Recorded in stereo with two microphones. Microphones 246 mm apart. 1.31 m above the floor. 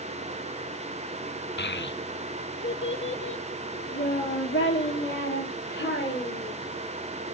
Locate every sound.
1.6 s a child speaking: 45° left (ahead or behind), 0.5 m; by 6.5 s 50° left (ahead or behind), 4.5 m